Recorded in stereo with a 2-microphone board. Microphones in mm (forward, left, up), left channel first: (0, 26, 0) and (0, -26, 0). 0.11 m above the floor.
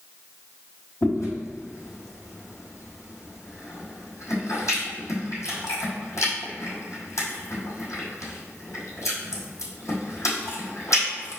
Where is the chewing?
75° left (ahead or behind), 1.9 m.